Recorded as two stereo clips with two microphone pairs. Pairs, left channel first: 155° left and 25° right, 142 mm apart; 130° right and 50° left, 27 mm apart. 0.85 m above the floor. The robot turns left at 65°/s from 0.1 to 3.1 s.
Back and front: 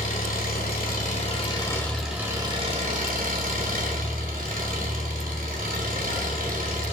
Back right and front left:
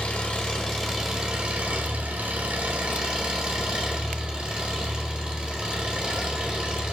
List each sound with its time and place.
0.0 s an engine running: 170° right, 2.0 m; by 6.9 s 5° right, 2.0 m